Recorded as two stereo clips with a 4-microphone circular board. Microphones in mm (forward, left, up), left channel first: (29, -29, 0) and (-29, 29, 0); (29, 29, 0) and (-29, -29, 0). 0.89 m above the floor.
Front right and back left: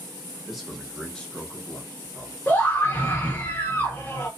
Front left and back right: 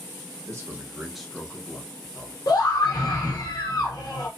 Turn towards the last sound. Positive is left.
turn(degrees=20)